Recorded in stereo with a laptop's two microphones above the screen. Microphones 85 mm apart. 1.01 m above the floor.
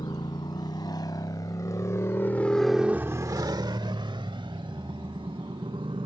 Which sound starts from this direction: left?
A motorcycle, at 0.0 s.